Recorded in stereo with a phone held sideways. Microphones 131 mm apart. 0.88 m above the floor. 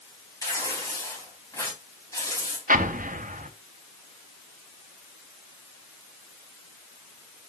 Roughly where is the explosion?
Right.